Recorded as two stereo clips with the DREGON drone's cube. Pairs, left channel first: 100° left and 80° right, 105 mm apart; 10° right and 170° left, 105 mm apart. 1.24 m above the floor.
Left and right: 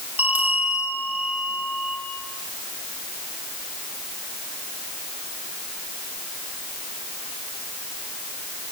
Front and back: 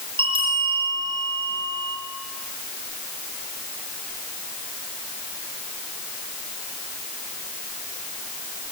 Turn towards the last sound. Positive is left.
turn(degrees=-150)